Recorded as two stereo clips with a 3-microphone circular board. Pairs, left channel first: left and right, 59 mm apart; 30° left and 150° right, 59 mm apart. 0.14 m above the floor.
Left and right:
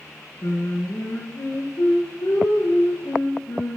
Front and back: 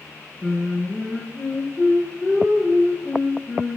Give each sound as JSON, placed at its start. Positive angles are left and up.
{"t": 0.4, "sound": "singing", "azimuth_deg": 110, "distance_m": 8.5}